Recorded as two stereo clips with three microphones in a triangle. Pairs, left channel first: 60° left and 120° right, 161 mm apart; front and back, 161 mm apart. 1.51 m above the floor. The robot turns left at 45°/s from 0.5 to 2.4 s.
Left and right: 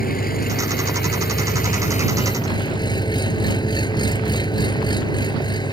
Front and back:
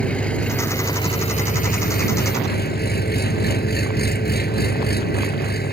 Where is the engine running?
85° left; by 5.7 s 5° right.